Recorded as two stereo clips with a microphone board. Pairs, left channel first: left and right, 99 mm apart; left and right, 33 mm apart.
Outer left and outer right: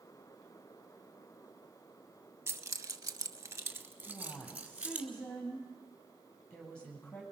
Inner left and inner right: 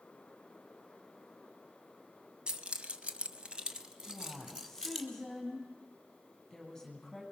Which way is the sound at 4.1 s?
10° left (ahead or behind).